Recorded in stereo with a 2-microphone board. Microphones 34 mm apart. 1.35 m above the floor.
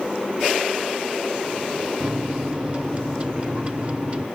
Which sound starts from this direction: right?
A microwave, at 2.0 s.